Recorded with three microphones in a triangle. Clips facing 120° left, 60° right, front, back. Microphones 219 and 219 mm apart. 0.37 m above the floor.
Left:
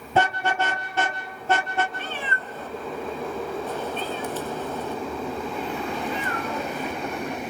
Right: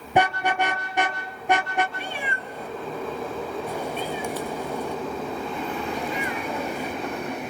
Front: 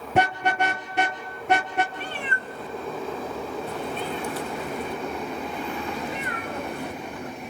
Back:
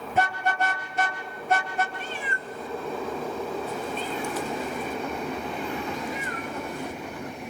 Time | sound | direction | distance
0.1 | a car horn | 15° left | 3 m
1.9 | a cat meowing | 20° left | 0.7 m